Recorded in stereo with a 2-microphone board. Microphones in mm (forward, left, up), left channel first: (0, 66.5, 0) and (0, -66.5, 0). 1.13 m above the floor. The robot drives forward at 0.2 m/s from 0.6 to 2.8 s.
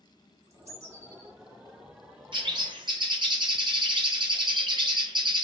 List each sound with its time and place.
0.4 s a bird: 50° right (ahead or behind), 0.7 m
2.3 s a bird: 35° right (ahead or behind), 0.5 m